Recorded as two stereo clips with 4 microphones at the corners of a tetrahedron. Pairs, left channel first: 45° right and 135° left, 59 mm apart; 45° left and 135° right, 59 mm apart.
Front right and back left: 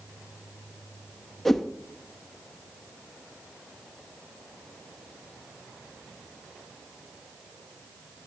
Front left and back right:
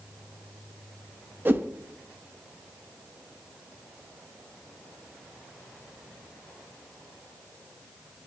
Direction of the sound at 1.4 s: 125° right.